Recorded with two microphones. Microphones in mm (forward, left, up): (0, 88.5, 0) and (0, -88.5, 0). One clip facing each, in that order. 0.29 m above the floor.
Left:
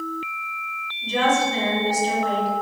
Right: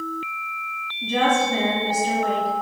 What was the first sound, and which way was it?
A woman speaking, 60° right (ahead or behind).